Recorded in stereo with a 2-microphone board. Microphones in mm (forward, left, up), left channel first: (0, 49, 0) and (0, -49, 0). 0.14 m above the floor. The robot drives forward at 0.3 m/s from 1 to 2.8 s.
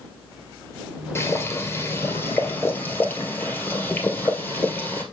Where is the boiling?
25° left (ahead or behind), 1.5 m; by 5.0 s 20° left (ahead or behind), 1.9 m.